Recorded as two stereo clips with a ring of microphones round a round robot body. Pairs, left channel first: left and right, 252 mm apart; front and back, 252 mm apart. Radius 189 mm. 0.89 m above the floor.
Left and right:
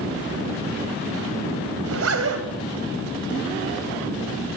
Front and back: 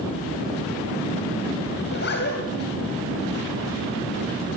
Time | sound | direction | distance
1.8 | a zipper | 60° right | 3 m